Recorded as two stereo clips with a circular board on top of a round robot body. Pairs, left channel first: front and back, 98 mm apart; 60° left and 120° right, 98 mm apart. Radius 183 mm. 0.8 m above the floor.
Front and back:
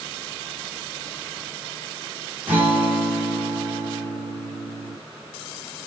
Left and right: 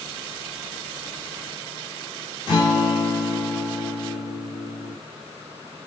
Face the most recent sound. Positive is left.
turn(degrees=105)